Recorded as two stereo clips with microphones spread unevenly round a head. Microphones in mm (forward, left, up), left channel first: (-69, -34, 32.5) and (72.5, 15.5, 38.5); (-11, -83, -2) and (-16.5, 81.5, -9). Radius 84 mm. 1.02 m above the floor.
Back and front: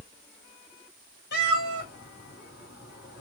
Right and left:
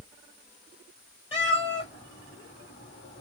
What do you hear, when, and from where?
1.3 s a cat meowing: 140° right, 3 m